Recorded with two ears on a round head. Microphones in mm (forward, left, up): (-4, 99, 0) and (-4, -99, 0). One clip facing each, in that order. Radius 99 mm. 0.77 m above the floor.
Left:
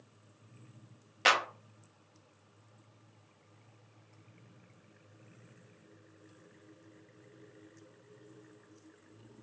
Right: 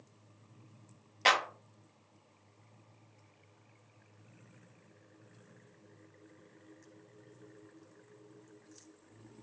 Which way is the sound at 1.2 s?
5° left (ahead or behind).